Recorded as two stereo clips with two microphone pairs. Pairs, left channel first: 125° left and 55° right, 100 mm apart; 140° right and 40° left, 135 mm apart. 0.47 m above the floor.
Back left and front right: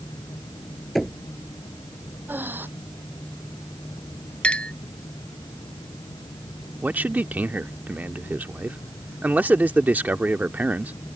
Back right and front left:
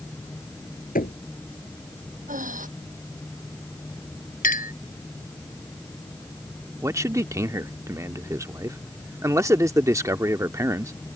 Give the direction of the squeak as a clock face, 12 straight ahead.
I don't hear a squeak.